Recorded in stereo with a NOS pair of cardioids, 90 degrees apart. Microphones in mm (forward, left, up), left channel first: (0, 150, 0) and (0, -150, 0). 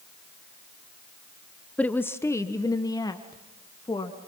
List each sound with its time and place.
1.8 s a woman speaking: 5° left, 0.9 m; by 4.3 s 15° left, 2.5 m